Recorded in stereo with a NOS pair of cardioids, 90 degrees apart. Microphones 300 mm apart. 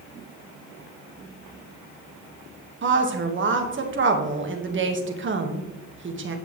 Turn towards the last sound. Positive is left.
turn(degrees=-40)